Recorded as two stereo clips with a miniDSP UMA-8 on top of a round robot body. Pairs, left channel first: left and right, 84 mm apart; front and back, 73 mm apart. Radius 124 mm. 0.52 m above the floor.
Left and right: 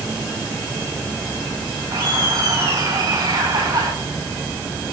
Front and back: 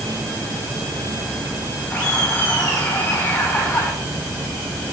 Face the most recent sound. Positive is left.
turn(degrees=-70)